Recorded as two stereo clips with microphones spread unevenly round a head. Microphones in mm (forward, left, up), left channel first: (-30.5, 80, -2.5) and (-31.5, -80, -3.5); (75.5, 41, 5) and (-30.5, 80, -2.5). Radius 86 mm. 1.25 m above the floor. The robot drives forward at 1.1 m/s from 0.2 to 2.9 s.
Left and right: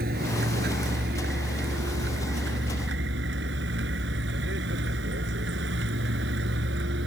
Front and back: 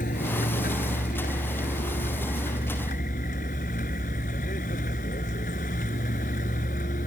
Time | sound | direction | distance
0.0 | a vehicle | 50° right | ?